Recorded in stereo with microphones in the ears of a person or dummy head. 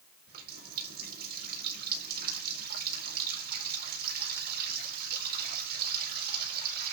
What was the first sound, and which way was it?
A running tap, 60° right (ahead or behind).